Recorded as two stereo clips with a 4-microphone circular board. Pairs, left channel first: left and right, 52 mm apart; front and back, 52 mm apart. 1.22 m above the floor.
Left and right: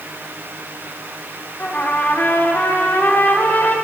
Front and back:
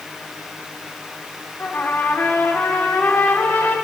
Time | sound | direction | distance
1.6 | a trumpet | 45° left | 1.4 m